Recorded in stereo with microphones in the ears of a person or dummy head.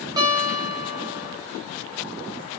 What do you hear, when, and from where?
0.2 s a guitar: 20° right (ahead or behind), 2.5 m